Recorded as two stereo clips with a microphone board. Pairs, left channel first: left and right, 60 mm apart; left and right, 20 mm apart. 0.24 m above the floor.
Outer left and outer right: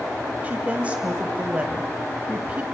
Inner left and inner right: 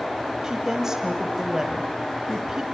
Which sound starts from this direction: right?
A woman speaking, at 0.4 s.